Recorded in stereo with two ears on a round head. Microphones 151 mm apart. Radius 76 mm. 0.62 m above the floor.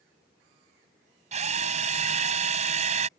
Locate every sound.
1.3 s a drill: 45° right (ahead or behind)